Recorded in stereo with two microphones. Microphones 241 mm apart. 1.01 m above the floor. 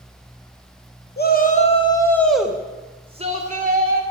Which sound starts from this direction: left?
A shout, at 1.2 s.